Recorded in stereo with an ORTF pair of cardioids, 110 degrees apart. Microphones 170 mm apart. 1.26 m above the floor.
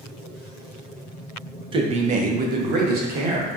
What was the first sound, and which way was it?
A man speaking, 30° right.